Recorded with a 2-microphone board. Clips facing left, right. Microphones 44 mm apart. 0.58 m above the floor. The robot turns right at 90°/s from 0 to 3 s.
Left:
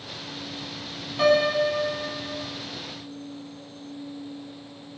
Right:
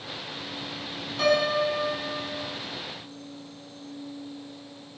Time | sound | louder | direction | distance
1.2 | a piano | left 3 dB | 15° left | 0.6 m